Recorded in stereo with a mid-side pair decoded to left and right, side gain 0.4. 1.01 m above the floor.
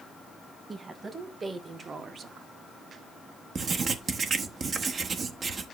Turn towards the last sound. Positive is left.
turn(degrees=-55)